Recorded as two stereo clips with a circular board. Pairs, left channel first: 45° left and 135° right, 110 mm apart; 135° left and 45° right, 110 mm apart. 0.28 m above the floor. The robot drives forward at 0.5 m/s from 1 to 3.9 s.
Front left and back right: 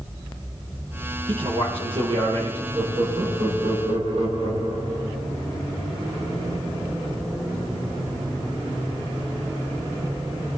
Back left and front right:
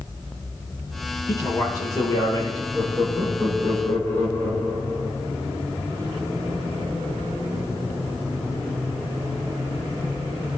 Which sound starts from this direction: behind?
A man speaking, at 1.3 s.